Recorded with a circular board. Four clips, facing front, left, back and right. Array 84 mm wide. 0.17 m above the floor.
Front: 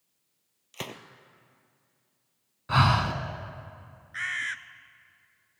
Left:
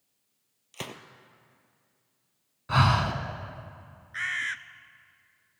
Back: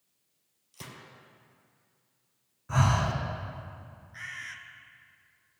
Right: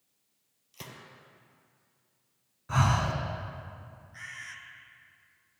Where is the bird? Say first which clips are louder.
Left 13 dB, front 9 dB; 50° left, 0.6 m.